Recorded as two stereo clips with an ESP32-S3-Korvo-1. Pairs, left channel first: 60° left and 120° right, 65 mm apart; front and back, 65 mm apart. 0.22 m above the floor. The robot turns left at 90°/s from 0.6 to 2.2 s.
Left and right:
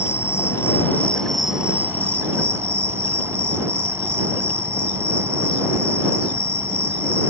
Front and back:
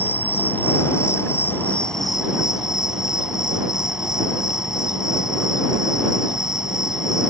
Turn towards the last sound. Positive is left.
turn(degrees=-105)